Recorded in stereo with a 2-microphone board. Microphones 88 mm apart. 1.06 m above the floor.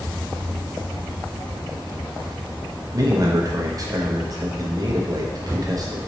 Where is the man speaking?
40° right (ahead or behind), 0.9 m.